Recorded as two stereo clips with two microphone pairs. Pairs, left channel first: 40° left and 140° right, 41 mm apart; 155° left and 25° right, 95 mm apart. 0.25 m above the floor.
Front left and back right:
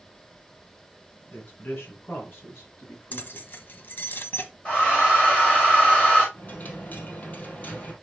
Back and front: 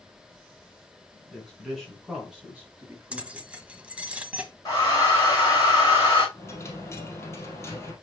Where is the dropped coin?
90° left, 2 m.